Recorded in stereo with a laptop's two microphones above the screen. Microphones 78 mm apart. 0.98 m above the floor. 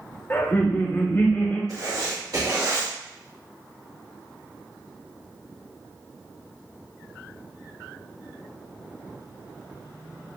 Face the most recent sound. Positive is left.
turn(degrees=-55)  # may be behind; listen again after turning